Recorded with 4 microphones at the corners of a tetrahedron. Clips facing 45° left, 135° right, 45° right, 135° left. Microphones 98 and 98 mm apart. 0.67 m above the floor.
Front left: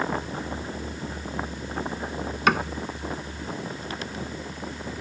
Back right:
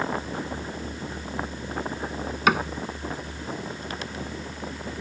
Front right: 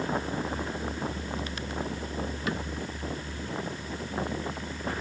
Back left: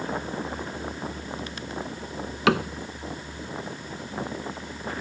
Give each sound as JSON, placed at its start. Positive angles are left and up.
{"t": 2.5, "sound": "a cupboard door", "azimuth_deg": 135}